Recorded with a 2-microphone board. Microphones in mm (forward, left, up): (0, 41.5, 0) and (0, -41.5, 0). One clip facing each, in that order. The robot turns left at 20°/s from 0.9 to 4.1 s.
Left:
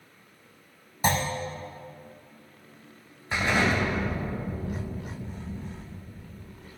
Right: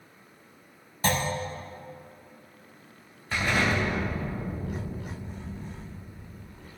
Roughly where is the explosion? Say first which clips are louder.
Left 1 dB; left.